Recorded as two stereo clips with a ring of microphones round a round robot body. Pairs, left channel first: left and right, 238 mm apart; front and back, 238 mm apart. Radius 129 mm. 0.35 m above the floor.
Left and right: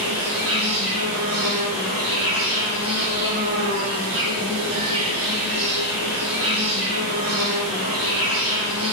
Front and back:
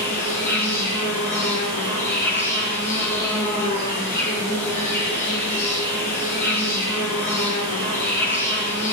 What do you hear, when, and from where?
0.0 s an insect: 65° right, 5 m